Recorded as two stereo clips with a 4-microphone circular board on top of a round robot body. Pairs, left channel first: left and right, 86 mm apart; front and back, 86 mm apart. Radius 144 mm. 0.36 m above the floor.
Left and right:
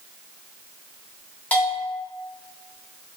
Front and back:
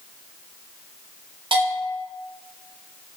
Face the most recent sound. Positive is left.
turn(degrees=165)